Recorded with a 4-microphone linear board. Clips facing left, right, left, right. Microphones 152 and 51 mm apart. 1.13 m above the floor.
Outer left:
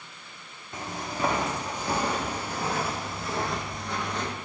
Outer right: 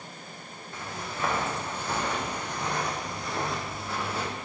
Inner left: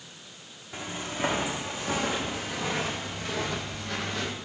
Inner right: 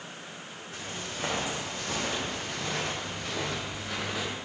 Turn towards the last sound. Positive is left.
turn(degrees=-10)  # may be behind; listen again after turning